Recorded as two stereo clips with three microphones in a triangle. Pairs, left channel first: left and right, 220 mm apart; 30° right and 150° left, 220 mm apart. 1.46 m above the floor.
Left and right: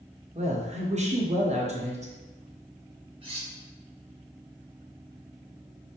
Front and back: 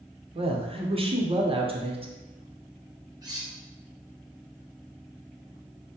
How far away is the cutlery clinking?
About 1.0 m.